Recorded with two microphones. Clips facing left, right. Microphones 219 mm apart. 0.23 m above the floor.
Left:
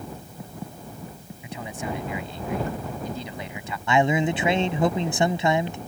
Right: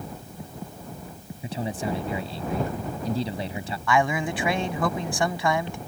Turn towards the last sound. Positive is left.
turn(degrees=25)  # may be behind; listen again after turning